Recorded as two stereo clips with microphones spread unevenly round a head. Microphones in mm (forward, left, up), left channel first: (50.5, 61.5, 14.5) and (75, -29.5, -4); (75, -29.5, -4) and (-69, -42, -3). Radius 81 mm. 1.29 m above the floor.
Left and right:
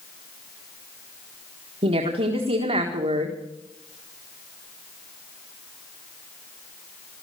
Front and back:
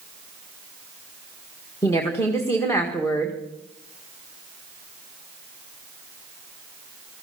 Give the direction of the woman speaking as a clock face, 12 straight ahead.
2 o'clock.